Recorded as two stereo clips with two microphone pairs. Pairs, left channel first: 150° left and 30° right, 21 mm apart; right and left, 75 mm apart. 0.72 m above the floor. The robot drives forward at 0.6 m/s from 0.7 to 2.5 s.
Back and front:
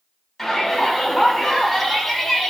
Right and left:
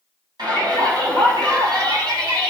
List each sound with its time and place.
0.4 s a shout: 65° left, 5.5 m; by 2.5 s 80° left, 5.5 m